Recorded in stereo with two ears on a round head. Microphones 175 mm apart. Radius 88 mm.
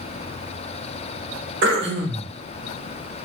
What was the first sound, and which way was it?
Throat clearing, 60° right (ahead or behind).